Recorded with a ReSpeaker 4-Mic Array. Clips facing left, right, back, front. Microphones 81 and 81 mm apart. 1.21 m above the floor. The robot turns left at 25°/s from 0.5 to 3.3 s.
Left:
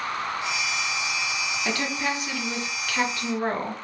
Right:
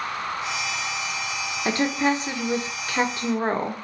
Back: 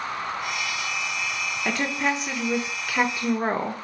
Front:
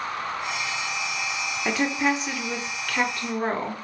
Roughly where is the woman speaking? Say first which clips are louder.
Right 7 dB, front 2 dB; right.